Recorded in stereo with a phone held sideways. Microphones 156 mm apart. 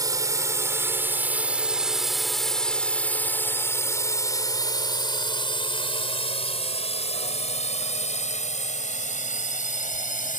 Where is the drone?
25° right (ahead or behind); by 10.4 s 55° left (ahead or behind).